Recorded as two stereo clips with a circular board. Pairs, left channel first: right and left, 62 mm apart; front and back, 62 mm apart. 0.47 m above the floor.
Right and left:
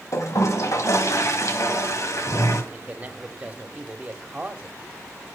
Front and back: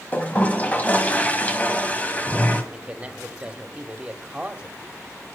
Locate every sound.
0.1 s a toilet flushing: 60° right, 2.5 m
2.7 s a man speaking: 130° left, 1.3 m